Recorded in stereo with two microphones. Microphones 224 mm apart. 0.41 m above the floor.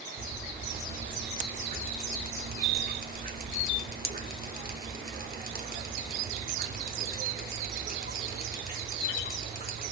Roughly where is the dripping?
Right.